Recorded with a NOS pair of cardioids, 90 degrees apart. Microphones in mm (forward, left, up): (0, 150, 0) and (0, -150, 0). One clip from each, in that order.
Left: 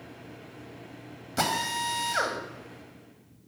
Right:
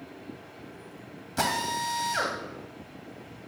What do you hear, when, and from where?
1.4 s a drill: 10° left, 1.9 m